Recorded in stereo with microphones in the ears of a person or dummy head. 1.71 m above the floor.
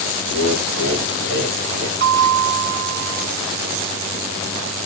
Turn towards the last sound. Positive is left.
turn(degrees=-45)  # may be behind; listen again after turning